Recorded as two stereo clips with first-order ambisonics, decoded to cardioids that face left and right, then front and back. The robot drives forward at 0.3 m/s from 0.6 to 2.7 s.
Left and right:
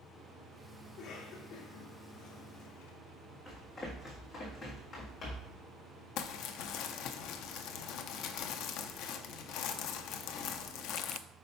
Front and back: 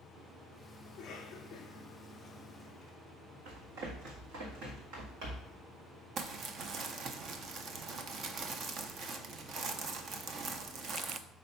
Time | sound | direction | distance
0.9 | a cough | 50° left | 1.2 m
3.5 | running footsteps | 175° left | 3 m
6.2 | crumpling | 125° left | 0.5 m